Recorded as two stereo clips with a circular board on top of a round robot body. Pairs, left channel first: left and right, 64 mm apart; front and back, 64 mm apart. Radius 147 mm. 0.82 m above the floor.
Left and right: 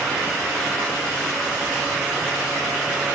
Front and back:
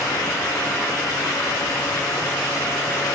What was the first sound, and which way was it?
Only background noise.